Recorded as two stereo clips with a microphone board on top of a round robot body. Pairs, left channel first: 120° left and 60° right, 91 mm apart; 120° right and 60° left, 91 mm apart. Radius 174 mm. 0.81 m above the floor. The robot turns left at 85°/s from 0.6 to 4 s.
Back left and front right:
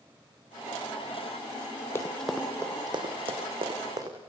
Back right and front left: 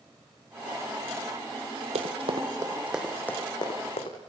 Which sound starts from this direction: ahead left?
Running footsteps, at 1.9 s.